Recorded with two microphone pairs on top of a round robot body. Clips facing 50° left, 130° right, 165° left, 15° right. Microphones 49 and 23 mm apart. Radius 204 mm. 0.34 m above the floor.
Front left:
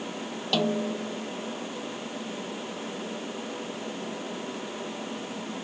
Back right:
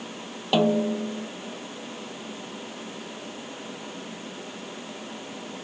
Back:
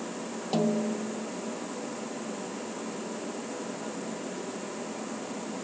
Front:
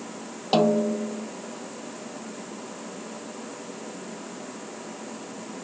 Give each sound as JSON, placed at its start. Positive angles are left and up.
{"t": 0.5, "sound": "a snare drum", "azimuth_deg": -60}